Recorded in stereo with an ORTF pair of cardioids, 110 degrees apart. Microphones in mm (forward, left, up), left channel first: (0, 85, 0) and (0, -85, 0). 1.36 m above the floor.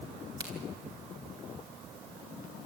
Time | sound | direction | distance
0.4 | a crack | 25° right | 4 m